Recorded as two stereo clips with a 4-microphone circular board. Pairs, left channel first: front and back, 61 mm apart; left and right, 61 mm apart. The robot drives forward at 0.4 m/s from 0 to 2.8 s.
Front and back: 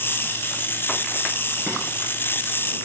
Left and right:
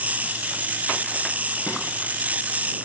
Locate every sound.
1.7 s frying: 110° left, 1.4 m